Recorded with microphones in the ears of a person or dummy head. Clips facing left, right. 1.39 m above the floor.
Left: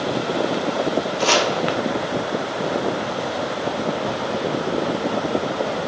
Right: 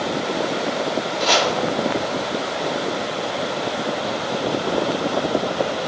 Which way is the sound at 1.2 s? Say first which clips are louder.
Even; 55° left (ahead or behind).